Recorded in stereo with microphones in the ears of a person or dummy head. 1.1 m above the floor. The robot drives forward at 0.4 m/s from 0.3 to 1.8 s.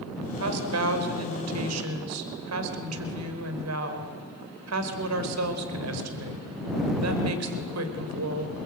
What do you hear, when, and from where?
0.4 s a woman speaking: 90° right, 3.5 m; by 8.6 s 85° right, 3.5 m